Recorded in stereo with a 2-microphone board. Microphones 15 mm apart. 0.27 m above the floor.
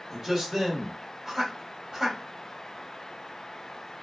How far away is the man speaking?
About 1.5 m.